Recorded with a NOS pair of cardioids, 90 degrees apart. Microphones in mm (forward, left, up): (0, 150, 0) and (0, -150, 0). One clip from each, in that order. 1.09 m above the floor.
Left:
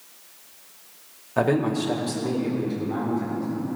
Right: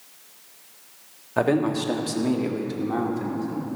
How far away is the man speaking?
About 1.7 m.